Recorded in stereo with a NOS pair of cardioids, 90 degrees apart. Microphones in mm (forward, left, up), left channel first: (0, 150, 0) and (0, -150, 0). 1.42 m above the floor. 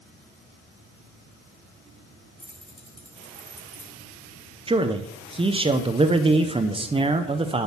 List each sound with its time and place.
2.4 s keys jangling: straight ahead, 4 m
4.7 s a man speaking: 20° right, 0.8 m